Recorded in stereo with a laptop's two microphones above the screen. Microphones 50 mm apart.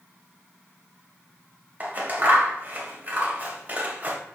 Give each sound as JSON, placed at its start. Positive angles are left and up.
{"t": 1.8, "sound": "scissors", "side_deg": -35, "distance_m": 1.6}